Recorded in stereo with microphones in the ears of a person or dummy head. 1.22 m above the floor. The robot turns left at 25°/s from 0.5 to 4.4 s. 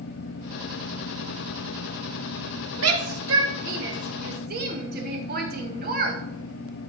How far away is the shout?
About 1.5 m.